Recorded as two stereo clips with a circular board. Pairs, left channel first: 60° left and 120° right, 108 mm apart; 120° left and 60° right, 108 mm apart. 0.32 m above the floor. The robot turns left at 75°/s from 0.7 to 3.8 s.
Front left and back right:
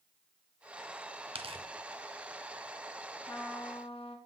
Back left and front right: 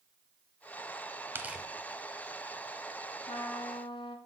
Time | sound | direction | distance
1.4 | tearing paper | 125° right | 0.6 m
3.3 | a trumpet | 125° left | 1.0 m